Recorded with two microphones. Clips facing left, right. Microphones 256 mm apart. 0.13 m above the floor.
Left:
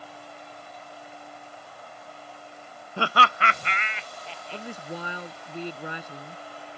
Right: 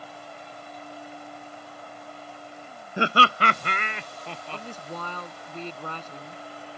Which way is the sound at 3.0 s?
15° right (ahead or behind).